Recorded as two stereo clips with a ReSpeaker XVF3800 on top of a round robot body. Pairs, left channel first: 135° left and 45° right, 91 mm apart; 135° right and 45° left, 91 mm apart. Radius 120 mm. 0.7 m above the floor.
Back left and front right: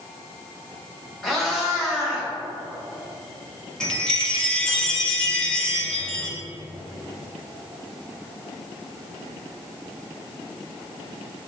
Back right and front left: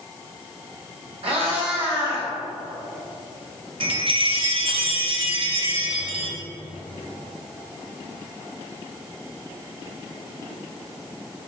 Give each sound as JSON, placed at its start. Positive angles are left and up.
{"t": 1.2, "sound": "a cat meowing", "azimuth_deg": 45, "distance_m": 1.9}
{"t": 3.8, "sound": "a chime", "azimuth_deg": 55, "distance_m": 1.2}